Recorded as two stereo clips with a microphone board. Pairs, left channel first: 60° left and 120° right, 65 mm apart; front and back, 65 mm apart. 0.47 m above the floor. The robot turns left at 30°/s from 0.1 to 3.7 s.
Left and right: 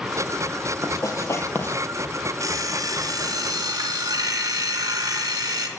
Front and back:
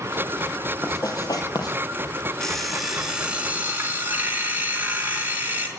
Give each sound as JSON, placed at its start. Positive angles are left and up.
{"t": 0.8, "sound": "writing", "azimuth_deg": 30, "distance_m": 2.5}
{"t": 2.4, "sound": "an alarm clock", "azimuth_deg": -80, "distance_m": 3.0}